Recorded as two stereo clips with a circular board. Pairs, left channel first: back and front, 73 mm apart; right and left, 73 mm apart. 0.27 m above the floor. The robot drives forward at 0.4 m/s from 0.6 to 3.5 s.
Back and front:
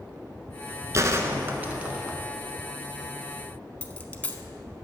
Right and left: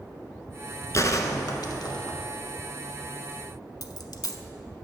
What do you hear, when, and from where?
0.9 s a gunshot: 45° right, 0.9 m; by 2.2 s 80° right, 0.7 m
3.8 s a dropped coin: 110° right, 0.6 m